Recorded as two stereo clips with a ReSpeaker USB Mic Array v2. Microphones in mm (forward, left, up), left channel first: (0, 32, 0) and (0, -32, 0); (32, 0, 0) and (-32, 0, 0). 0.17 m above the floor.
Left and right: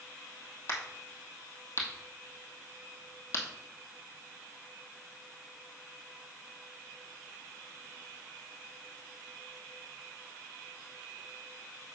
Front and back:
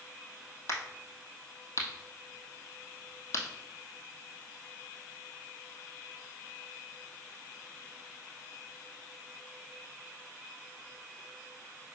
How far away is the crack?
About 1.9 m.